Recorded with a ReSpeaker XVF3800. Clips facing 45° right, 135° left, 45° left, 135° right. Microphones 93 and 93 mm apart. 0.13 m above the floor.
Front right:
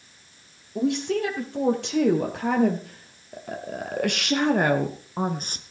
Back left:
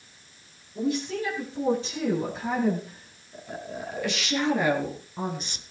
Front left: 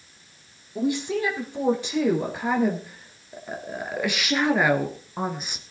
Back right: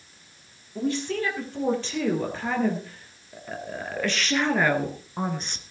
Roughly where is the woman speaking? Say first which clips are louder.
Front right 4 dB, front left 2 dB; ahead right.